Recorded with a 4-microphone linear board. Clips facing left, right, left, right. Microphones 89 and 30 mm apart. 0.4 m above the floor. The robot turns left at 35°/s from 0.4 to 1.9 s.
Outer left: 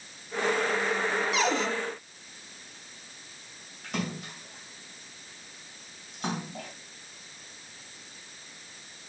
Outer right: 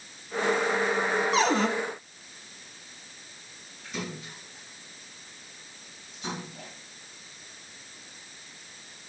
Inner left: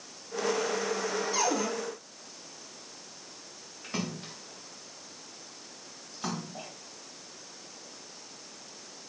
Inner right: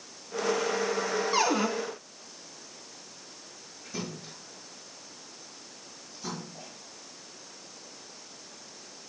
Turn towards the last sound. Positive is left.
turn(degrees=55)  # may be behind; listen again after turning